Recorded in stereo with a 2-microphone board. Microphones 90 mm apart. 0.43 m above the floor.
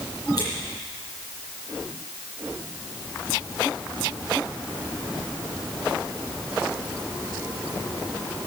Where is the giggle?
I don't hear a giggle.